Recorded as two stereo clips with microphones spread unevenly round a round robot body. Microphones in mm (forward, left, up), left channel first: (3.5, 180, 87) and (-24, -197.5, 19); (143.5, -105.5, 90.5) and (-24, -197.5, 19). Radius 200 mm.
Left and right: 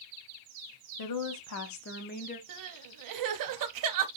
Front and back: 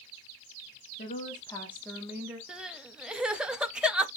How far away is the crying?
About 0.5 m.